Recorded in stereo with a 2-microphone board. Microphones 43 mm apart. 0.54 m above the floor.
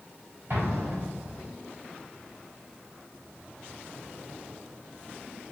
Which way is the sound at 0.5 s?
55° right (ahead or behind).